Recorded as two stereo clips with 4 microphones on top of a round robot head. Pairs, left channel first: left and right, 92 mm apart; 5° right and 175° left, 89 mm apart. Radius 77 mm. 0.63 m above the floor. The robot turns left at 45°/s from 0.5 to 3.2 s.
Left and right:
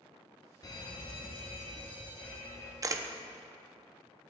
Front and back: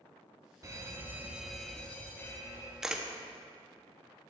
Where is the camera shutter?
105° right, 0.7 m; by 3.1 s 115° right, 0.7 m.